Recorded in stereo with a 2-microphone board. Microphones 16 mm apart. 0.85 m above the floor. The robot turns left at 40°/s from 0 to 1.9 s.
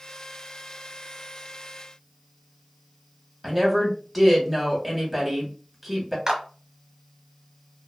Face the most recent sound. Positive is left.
turn(degrees=-30)  # may be behind; listen again after turning